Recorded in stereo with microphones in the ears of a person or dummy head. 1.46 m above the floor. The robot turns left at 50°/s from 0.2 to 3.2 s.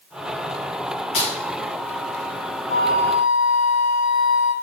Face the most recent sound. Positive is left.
turn(degrees=40)  # may be behind; listen again after turning